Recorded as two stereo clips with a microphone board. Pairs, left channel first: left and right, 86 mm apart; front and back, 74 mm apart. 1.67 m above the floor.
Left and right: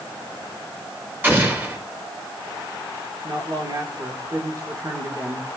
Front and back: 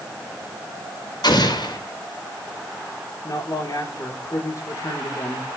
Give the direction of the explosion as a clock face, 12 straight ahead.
1 o'clock.